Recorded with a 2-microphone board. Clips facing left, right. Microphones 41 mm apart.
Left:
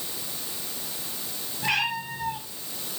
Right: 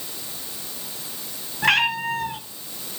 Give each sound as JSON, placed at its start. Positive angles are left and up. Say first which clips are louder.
{"t": 1.6, "sound": "a cat meowing", "louder": "right 7 dB", "side_deg": -75, "distance_m": 3.5}